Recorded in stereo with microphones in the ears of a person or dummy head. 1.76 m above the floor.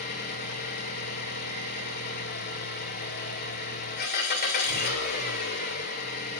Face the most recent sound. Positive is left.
turn(degrees=50)  # may be behind; listen again after turning